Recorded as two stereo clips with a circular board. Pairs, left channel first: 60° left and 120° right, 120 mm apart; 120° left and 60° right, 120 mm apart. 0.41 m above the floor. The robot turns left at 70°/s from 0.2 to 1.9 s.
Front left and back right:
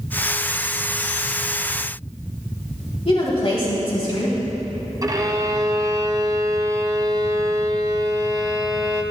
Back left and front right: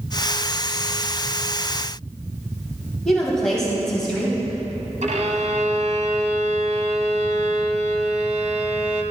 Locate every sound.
3.0 s a woman speaking: 35° left, 2.5 m
5.0 s a violin: 65° right, 1.1 m